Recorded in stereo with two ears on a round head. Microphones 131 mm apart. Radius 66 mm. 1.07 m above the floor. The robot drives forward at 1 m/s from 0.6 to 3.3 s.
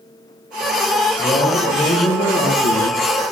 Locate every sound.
1.2 s a man speaking: 30° left (ahead or behind), 1.9 m; by 3.2 s 50° left (ahead or behind), 1.2 m